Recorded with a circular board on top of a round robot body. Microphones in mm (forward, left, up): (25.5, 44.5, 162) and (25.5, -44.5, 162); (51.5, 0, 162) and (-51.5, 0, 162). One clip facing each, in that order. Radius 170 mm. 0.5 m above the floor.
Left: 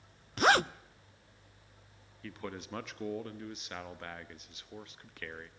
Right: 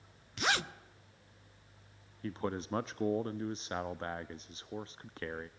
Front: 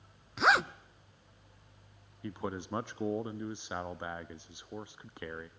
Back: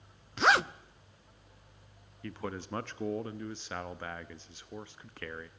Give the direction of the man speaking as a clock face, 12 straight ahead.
2 o'clock.